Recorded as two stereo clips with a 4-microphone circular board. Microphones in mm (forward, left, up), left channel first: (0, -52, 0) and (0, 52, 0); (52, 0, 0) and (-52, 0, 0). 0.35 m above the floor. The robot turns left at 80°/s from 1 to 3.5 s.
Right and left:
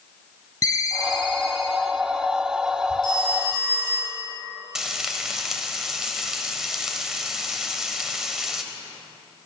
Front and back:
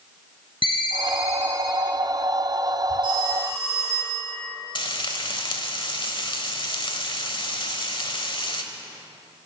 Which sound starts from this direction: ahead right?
A ringtone, at 0.6 s.